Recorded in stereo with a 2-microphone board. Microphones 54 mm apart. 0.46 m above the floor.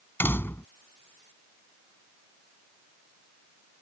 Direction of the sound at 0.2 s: 40° left (ahead or behind).